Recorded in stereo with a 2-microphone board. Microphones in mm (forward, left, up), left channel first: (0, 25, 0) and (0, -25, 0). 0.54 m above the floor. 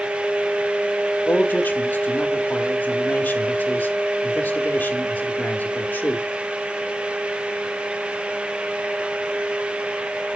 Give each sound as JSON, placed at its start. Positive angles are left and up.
{"t": 1.3, "sound": "a man speaking", "side_deg": 35, "distance_m": 1.1}